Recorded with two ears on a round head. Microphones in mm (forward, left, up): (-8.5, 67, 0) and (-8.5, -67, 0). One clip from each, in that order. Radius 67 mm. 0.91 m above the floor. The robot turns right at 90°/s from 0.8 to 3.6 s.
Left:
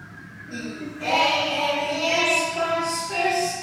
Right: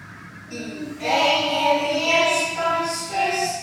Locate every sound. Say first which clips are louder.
0.5 s singing: right 1 dB; 90° right, 1.2 m; by 3.5 s 160° left, 1.2 m